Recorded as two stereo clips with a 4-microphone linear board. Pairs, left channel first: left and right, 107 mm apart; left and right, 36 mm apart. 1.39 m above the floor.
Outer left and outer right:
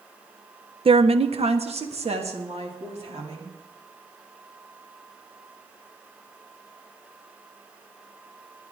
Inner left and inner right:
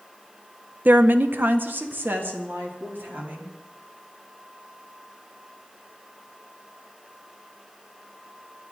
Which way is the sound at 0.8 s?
60° right (ahead or behind).